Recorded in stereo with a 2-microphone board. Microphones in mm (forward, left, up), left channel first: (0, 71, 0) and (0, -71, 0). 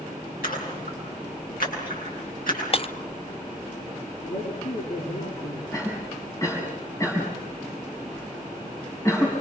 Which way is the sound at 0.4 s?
80° left.